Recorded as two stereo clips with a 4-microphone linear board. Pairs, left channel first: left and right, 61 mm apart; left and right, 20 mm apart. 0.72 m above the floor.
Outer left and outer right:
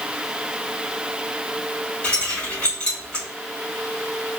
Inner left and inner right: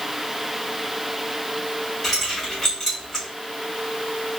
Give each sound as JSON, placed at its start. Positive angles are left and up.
{"t": 2.0, "sound": "keys jangling", "side_deg": 15, "distance_m": 1.8}